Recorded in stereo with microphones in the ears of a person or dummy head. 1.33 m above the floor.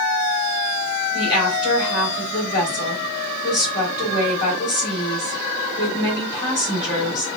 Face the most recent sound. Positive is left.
turn(degrees=25)  # may be behind; listen again after turning